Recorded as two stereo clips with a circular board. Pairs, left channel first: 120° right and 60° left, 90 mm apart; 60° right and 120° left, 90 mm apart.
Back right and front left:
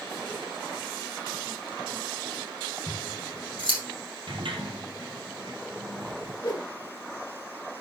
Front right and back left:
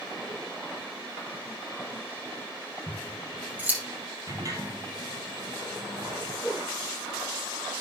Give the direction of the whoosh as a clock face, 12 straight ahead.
5 o'clock.